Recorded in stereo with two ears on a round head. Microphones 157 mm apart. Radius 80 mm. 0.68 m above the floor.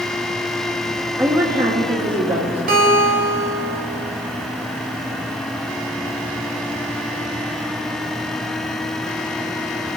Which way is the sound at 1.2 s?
15° right (ahead or behind).